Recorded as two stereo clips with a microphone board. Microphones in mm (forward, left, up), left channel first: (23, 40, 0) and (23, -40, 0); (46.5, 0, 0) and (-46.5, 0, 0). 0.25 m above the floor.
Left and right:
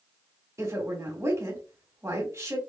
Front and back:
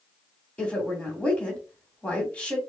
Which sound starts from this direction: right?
A woman speaking, at 0.6 s.